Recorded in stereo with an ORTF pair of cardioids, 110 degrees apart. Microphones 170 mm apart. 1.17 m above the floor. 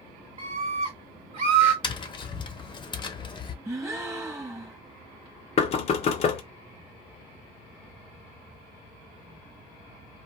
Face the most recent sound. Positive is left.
turn(degrees=40)